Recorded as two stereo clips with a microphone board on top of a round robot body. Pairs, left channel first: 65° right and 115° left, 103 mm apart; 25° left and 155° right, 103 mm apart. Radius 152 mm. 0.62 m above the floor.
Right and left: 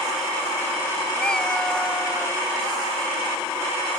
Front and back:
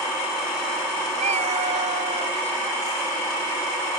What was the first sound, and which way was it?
A cat meowing, 150° right.